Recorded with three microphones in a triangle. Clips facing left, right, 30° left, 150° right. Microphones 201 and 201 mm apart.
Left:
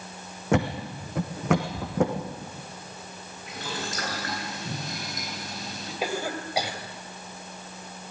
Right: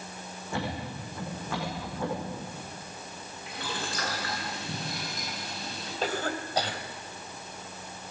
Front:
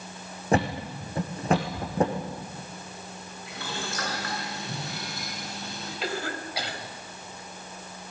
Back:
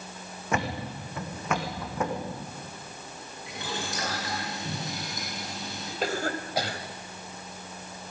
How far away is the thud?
About 3.5 m.